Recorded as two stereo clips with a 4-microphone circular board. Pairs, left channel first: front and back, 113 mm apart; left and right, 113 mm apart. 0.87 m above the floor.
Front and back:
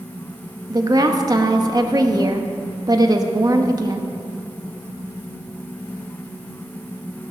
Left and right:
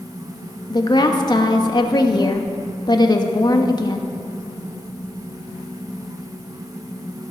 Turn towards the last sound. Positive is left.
turn(degrees=130)